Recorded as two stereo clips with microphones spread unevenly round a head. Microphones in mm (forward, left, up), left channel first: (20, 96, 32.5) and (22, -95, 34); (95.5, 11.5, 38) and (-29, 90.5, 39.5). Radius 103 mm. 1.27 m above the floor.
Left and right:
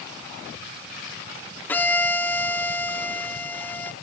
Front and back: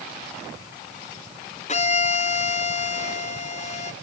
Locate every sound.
1.7 s a violin: 10° left, 1.9 m